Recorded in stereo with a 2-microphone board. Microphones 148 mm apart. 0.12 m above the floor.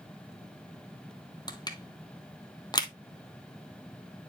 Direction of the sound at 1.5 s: 30° left (ahead or behind).